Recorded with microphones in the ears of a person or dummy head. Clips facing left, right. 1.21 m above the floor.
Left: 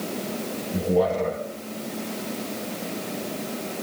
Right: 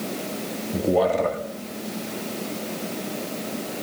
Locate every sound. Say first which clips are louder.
0.7 s a man speaking: right 1 dB; 60° right (ahead or behind), 1.7 m